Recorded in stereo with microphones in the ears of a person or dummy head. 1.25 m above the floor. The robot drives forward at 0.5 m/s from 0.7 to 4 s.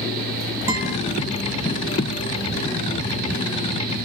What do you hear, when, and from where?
0.7 s a guitar: 20° right (ahead or behind), 2.0 m